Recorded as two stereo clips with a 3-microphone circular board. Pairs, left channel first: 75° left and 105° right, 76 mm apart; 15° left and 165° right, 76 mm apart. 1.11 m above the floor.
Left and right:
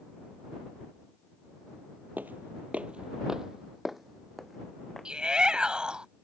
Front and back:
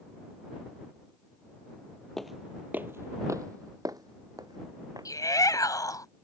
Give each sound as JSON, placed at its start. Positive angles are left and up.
{"t": 2.2, "sound": "footsteps", "azimuth_deg": -65}
{"t": 5.0, "sound": "a shout", "azimuth_deg": -25}